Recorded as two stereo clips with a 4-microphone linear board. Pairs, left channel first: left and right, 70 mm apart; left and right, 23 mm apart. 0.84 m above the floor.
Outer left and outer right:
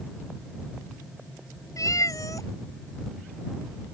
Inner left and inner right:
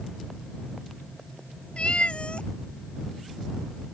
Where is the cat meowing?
55° left (ahead or behind).